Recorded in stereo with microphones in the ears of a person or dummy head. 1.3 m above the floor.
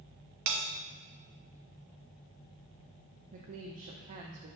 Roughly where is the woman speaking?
Right.